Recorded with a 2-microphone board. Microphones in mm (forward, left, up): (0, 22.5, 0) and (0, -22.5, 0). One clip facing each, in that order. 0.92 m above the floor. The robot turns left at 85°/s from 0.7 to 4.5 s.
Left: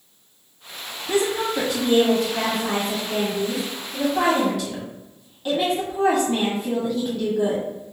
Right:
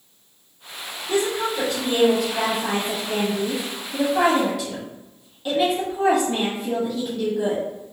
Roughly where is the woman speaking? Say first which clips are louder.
Left 1 dB; left.